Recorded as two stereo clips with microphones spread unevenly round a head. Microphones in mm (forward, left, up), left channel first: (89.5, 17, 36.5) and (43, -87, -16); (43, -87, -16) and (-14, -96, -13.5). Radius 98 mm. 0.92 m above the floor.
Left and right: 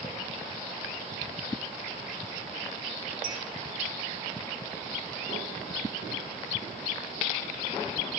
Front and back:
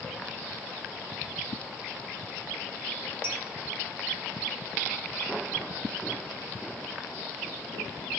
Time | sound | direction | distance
3.2 | a clink | 120° right | 4 m